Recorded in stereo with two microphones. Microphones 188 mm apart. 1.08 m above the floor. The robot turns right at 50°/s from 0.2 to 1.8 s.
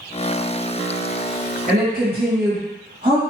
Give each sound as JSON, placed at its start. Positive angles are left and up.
{"t": 1.7, "sound": "a woman speaking", "side_deg": -40, "distance_m": 1.6}